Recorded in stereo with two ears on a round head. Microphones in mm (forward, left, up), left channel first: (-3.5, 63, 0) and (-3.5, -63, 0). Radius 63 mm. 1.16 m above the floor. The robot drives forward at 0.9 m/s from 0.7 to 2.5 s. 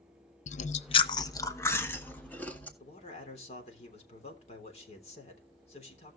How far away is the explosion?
I don't hear an explosion.